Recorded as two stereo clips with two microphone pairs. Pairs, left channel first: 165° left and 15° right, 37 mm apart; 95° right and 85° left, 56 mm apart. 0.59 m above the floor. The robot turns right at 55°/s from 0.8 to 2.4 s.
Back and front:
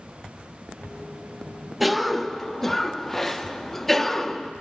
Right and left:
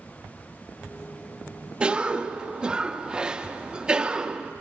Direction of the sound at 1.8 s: 75° left.